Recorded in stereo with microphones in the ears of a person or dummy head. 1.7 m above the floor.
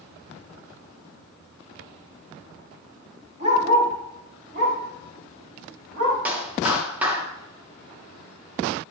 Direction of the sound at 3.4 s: 35° right (ahead or behind).